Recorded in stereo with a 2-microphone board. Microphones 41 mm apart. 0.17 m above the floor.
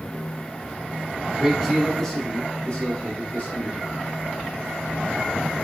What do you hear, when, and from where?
1.3 s a man speaking: 5° right (ahead or behind), 1.1 m; by 4.1 s 50° left (ahead or behind), 1.7 m